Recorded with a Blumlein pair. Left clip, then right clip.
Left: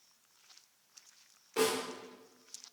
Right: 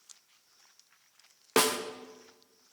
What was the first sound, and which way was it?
A snare drum, 40° right.